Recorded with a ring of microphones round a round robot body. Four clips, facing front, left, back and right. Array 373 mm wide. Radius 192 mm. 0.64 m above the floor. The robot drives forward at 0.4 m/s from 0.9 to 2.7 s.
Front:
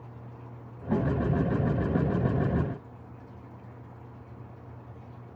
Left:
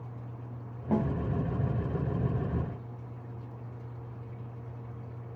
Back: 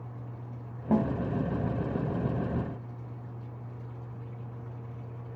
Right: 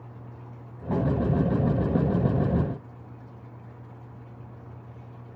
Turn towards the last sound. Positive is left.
turn(degrees=175)